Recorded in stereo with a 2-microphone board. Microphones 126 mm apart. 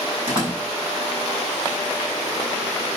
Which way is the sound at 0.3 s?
45° right (ahead or behind).